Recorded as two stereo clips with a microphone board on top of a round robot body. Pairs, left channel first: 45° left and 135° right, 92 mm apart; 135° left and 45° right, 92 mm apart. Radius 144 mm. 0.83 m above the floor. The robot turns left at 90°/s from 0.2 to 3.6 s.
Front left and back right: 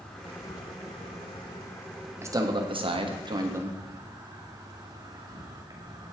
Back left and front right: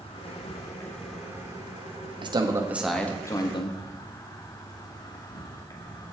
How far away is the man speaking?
About 1.8 m.